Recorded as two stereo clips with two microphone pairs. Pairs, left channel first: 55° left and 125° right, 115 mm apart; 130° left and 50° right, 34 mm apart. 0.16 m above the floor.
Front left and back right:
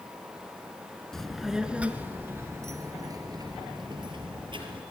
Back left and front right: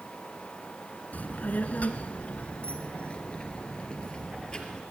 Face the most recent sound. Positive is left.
turn(degrees=-165)